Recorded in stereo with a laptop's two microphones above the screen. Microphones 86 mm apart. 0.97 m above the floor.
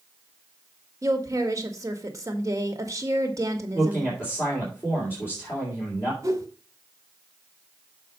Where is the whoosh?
40° right (ahead or behind), 1.8 m.